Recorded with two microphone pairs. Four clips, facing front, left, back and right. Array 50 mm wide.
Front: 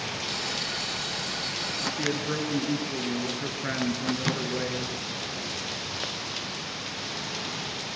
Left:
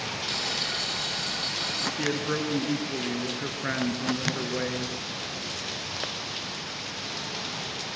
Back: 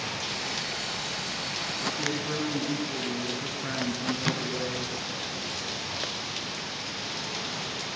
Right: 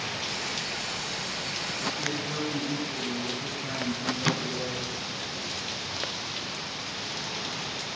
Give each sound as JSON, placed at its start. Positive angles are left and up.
{"t": 0.3, "sound": "frying", "azimuth_deg": 70, "distance_m": 3.0}
{"t": 2.0, "sound": "a man speaking", "azimuth_deg": 70, "distance_m": 4.0}
{"t": 4.2, "sound": "a microwave", "azimuth_deg": -95, "distance_m": 2.0}